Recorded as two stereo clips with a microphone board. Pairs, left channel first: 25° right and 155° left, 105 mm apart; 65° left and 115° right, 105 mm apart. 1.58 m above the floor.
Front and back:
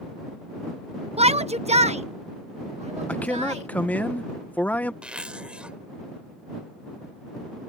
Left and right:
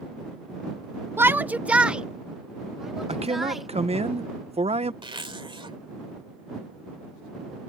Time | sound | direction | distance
1.2 | a shout | straight behind | ?
3.1 | a man speaking | 95° right | ?
5.0 | a zipper | 125° right | ?